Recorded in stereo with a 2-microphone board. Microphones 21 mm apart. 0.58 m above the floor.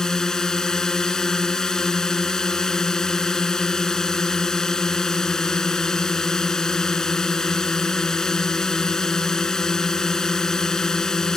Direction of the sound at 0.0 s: 30° left (ahead or behind).